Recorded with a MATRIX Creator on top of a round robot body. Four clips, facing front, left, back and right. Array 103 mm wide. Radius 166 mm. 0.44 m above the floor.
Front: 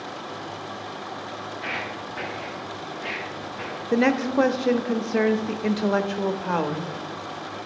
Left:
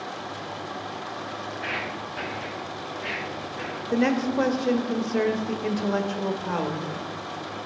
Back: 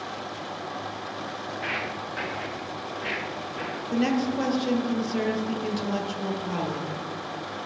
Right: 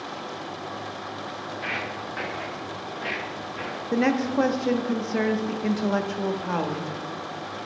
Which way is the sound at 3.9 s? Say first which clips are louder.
Even, front 4 dB; 10° right.